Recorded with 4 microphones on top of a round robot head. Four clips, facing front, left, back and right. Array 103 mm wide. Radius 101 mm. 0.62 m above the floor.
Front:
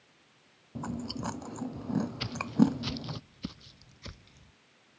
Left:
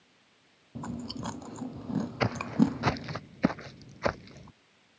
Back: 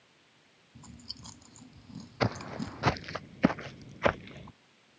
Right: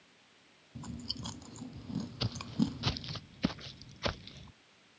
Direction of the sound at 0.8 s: 40° left.